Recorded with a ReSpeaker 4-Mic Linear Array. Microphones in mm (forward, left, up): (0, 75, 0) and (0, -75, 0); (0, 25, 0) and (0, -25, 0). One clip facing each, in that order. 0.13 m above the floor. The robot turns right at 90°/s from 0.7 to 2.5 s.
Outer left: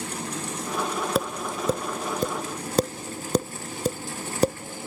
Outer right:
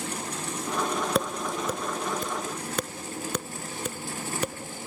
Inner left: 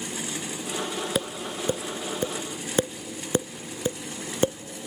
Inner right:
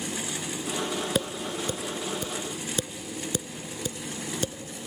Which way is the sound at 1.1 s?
Centre (ahead or behind).